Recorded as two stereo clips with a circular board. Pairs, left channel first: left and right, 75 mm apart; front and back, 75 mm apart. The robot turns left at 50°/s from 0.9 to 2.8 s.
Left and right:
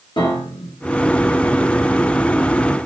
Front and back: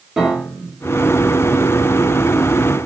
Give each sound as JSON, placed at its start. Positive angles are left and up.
{"t": 0.2, "sound": "a piano", "azimuth_deg": 95, "distance_m": 1.5}